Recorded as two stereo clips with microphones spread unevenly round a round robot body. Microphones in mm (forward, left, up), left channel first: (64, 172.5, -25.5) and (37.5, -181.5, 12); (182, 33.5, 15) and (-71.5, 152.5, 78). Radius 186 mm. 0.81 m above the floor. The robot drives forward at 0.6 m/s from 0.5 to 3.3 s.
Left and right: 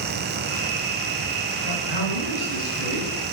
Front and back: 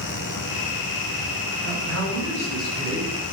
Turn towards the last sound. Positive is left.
turn(degrees=125)